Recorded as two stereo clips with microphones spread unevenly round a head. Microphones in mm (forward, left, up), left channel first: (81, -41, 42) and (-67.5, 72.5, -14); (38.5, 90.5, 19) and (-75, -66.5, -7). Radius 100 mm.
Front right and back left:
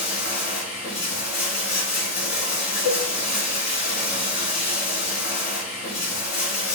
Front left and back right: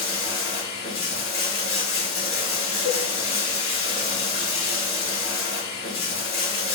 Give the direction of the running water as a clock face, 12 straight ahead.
11 o'clock.